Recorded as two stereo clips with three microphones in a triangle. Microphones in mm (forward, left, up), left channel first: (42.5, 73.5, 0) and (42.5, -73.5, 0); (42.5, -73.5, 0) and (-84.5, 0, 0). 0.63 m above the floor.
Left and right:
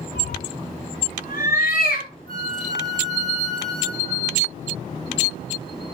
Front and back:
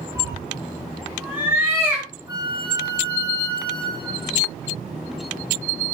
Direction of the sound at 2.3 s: 90° right.